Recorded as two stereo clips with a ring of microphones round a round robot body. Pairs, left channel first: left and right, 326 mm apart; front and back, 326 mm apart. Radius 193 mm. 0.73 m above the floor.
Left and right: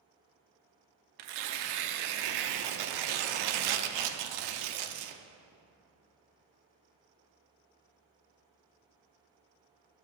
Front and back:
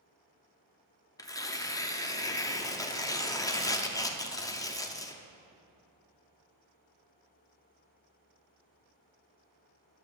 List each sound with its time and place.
1.2 s tearing paper: 80° right, 0.7 m